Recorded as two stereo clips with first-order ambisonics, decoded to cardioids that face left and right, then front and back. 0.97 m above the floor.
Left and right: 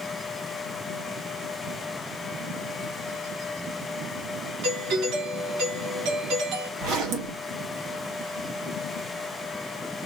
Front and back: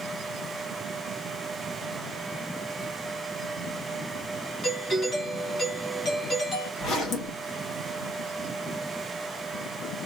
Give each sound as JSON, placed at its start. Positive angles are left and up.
{"t": 4.6, "sound": "a doorbell", "azimuth_deg": -60, "distance_m": 2.0}
{"t": 6.8, "sound": "a zipper", "azimuth_deg": -60, "distance_m": 1.7}